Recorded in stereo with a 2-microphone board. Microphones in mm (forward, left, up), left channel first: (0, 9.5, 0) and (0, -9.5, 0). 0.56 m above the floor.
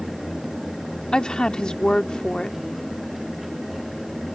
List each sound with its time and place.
1.1 s a woman speaking: 45° left (ahead or behind)